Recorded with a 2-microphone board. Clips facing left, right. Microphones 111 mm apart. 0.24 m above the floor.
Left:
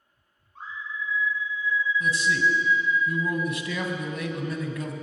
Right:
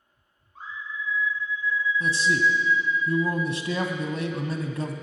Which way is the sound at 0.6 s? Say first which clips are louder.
Left 1 dB; centre (ahead or behind).